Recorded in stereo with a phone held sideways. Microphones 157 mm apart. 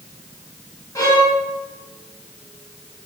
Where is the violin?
20° left (ahead or behind), 1.6 m.